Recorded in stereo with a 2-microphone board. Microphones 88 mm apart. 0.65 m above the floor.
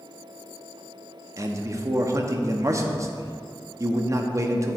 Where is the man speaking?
35° right (ahead or behind), 0.5 m.